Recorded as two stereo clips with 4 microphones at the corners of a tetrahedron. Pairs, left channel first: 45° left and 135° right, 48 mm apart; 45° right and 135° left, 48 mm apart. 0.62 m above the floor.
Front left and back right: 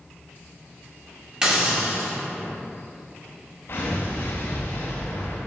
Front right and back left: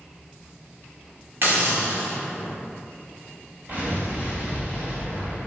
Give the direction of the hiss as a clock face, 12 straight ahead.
7 o'clock.